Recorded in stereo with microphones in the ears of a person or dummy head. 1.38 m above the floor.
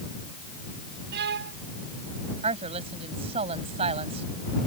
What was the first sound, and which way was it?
A violin, 65° right (ahead or behind).